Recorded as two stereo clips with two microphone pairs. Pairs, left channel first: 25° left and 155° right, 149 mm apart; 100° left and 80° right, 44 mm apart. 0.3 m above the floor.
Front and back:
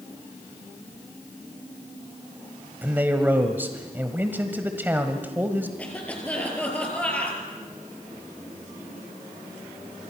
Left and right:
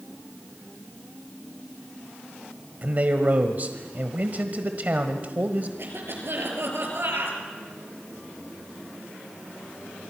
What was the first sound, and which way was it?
A man speaking, 90° right.